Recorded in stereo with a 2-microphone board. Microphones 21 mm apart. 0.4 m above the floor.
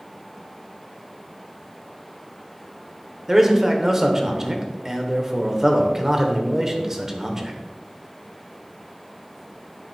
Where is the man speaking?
20° right (ahead or behind), 1.0 m.